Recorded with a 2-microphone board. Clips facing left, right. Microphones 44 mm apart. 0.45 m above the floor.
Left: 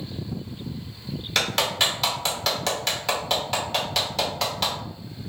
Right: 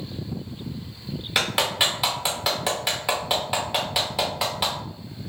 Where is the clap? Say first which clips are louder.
Right 1 dB; 10° right (ahead or behind), 0.9 m.